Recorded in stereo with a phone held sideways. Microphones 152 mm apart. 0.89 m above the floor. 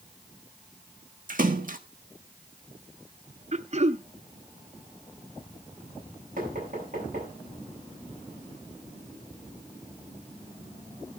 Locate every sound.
1.3 s a splash: 65° right (ahead or behind), 1.3 m
3.5 s throat clearing: 45° right (ahead or behind), 0.6 m
6.4 s knocking: 60° right (ahead or behind), 6.5 m